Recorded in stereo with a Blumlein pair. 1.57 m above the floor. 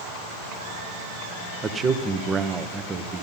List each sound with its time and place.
1.6 s a man speaking: 20° right, 1.1 m